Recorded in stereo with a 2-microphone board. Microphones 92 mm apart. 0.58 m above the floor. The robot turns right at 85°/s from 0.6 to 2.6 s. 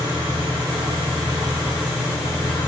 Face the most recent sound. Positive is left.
turn(degrees=60)